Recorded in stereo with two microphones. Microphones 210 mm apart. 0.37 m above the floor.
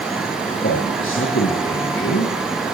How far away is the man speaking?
About 7 m.